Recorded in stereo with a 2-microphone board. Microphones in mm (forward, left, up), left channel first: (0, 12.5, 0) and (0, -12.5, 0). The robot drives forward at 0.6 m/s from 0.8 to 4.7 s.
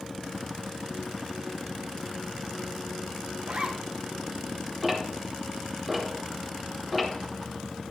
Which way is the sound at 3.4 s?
50° right (ahead or behind).